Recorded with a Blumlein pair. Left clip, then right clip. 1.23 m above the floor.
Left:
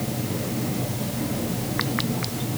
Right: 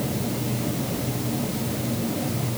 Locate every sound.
Only background noise.